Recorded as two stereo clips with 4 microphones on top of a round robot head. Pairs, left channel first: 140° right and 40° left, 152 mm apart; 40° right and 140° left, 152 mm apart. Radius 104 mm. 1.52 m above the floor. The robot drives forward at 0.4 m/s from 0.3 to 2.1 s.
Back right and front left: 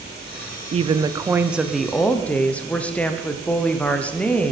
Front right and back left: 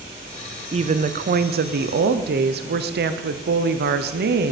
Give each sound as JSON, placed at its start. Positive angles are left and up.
{"t": 0.7, "sound": "a woman speaking", "azimuth_deg": 90, "distance_m": 0.5}